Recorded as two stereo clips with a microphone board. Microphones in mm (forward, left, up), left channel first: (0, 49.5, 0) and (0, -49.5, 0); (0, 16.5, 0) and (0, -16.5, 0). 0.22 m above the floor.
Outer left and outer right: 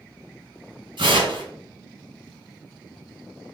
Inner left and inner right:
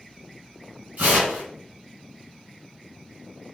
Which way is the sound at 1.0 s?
60° right (ahead or behind).